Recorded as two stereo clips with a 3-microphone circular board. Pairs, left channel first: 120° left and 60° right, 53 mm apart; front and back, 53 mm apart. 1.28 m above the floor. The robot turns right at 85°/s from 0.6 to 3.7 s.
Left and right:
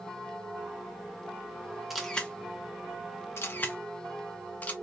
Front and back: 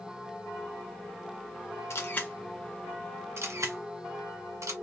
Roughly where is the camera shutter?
Ahead left.